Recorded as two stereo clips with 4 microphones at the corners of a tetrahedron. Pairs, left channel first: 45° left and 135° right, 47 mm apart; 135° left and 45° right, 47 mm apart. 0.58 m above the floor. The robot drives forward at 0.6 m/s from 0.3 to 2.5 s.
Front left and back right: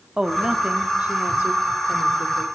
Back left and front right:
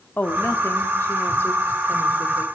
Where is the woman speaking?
155° left, 1.0 m; by 2.5 s 170° left, 2 m.